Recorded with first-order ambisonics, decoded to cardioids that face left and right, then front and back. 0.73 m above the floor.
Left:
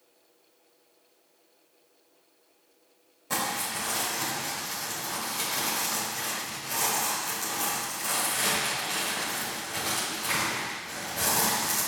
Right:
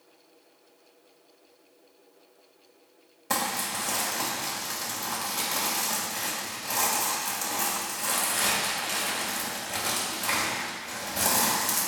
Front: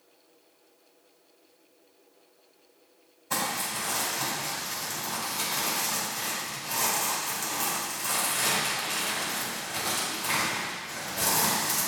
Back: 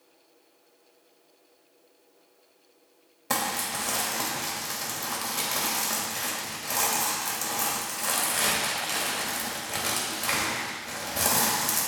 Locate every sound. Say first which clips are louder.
3.3 s crumpling: right 1 dB, back 1 dB; 155° right, 2.5 m